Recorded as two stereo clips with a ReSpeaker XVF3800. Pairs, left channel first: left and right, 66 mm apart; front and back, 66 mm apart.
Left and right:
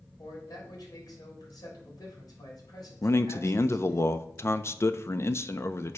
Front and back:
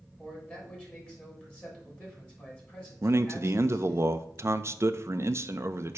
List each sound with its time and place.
0.2 s a man speaking: 70° left, 3.5 m
3.0 s a man speaking: 135° left, 0.5 m